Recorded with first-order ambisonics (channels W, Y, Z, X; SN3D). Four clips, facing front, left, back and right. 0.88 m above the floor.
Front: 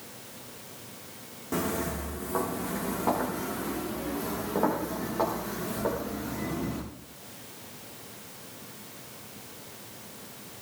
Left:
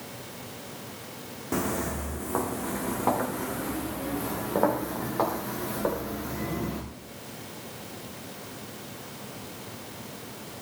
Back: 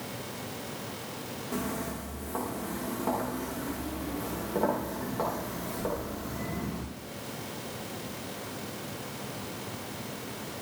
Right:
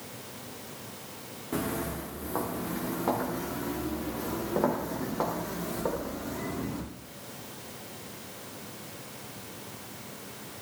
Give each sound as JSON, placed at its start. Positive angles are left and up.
{"t": 1.5, "sound": "footsteps", "azimuth_deg": 75, "distance_m": 3.5}